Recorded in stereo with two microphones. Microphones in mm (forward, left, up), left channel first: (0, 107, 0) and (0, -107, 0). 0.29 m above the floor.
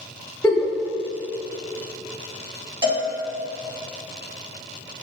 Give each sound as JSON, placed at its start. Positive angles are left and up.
{"t": 0.4, "sound": "a giggle", "side_deg": 10, "distance_m": 0.6}
{"t": 2.8, "sound": "a cowbell", "side_deg": -20, "distance_m": 0.8}